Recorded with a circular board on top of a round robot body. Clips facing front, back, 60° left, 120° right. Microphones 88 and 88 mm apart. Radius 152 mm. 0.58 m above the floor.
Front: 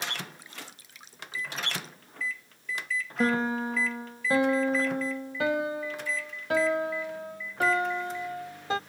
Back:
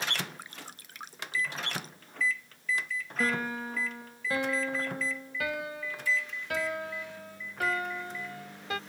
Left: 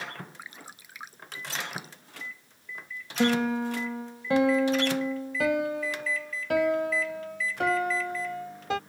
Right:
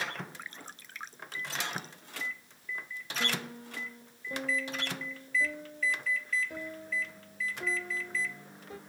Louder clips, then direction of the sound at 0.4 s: Even, left 1 dB; 140° left.